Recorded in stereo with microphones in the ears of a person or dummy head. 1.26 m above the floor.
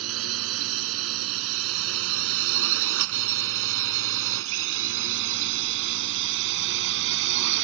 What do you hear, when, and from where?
0.0 s a drone: 80° right; by 7.6 s 60° right (ahead or behind)